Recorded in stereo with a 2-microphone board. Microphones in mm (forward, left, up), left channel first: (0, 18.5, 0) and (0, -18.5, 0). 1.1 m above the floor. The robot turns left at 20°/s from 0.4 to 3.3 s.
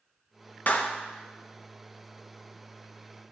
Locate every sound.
0.7 s a clap: 50° left (ahead or behind), 0.8 m; by 0.9 s 45° left (ahead or behind), 0.8 m